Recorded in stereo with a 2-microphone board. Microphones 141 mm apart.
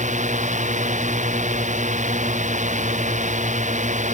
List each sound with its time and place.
0.0 s a drone: 55° right (ahead or behind)